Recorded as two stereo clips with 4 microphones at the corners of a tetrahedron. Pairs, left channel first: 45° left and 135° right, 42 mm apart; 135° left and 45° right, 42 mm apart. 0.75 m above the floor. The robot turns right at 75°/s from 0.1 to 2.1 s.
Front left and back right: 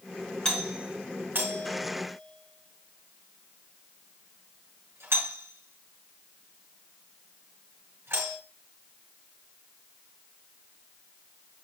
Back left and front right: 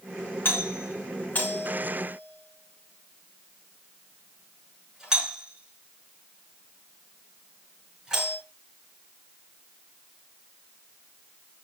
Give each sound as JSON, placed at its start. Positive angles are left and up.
{"t": 0.5, "sound": "a doorbell", "azimuth_deg": 115, "distance_m": 4.5}